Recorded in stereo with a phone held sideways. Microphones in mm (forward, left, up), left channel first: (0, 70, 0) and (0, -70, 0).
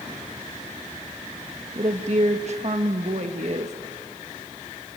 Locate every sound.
1.8 s a woman speaking: 55° right (ahead or behind), 1.3 m